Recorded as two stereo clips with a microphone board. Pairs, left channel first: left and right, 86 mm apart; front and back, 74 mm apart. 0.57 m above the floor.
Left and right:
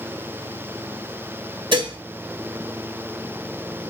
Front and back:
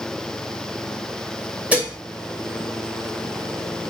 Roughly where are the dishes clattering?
Right.